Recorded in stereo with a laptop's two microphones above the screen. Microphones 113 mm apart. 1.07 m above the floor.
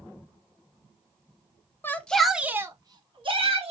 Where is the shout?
20° left (ahead or behind), 0.6 m; by 3.7 s 55° right (ahead or behind), 0.9 m.